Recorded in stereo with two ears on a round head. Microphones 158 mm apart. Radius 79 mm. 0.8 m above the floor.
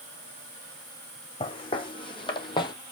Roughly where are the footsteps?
Left.